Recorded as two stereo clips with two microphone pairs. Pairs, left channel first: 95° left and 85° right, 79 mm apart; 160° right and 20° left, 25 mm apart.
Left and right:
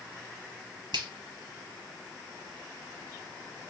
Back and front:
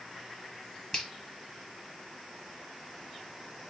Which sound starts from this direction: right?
A finger snap, at 0.9 s.